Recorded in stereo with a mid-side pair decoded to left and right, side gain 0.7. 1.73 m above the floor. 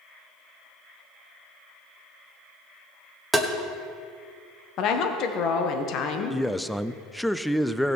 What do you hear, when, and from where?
3.3 s tapping: straight ahead, 1.4 m
4.8 s a woman speaking: 55° left, 1.6 m
6.3 s a man speaking: straight ahead, 0.5 m